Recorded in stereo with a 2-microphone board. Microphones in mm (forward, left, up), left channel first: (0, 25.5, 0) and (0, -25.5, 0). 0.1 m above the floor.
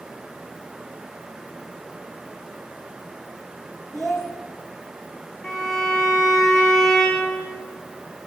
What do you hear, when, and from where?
3.9 s a child speaking: 5° left (ahead or behind), 4 m
5.4 s a violin: centre (ahead or behind), 5.5 m